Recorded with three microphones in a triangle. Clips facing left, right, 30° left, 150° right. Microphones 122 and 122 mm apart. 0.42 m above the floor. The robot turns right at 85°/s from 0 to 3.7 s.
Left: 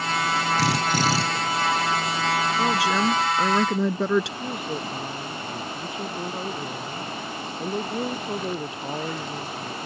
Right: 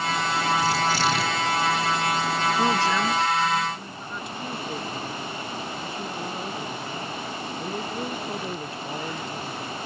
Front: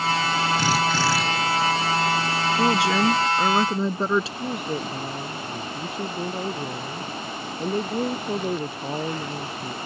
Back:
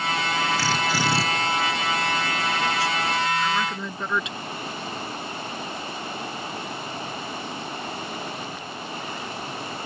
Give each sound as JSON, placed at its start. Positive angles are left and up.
{"t": 0.6, "sound": "a drill", "azimuth_deg": 100}
{"t": 2.6, "sound": "a woman speaking", "azimuth_deg": -10}
{"t": 4.4, "sound": "a woman speaking", "azimuth_deg": 15}